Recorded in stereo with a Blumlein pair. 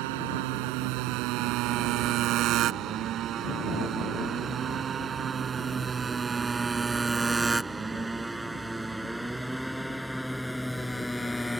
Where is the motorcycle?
45° right; by 11.6 s 5° left.